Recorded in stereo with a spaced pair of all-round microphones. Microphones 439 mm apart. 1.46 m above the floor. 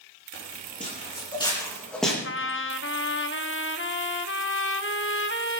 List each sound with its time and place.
0.3 s footsteps: 20° left (ahead or behind), 5 m; by 2.1 s centre (ahead or behind), 4 m
2.2 s a trumpet: 30° left (ahead or behind), 0.8 m